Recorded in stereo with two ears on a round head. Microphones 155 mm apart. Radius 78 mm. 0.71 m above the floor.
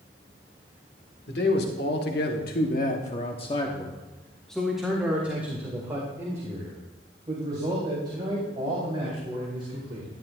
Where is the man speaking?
65° left (ahead or behind), 2 m; by 10.1 s 35° right (ahead or behind), 5.5 m.